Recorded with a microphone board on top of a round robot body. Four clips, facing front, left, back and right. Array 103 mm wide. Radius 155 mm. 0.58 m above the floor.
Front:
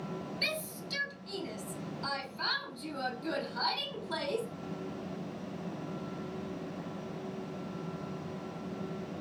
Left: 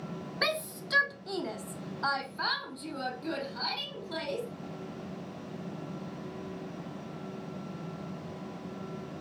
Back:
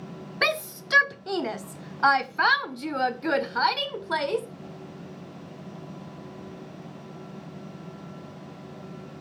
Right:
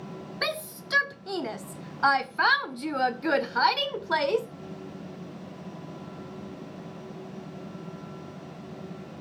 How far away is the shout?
About 1.9 m.